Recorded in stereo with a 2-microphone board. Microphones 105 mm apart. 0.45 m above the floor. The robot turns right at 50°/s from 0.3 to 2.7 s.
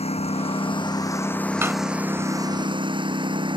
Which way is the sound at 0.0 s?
110° left.